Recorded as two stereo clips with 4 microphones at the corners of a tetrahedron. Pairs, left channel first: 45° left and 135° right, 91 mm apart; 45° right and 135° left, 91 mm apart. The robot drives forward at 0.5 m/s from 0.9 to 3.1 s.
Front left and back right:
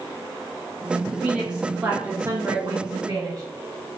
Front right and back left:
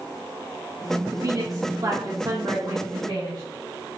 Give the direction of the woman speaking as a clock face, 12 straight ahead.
7 o'clock.